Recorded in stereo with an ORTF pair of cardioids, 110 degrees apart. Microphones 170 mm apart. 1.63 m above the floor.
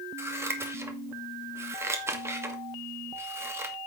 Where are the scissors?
15° right, 2 m.